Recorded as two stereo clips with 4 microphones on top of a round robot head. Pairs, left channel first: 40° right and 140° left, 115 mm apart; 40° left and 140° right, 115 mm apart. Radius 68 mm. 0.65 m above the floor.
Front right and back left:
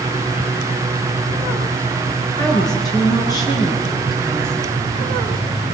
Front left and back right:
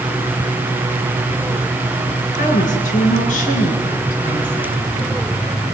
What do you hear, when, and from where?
2.4 s a woman speaking: 20° left, 9.5 m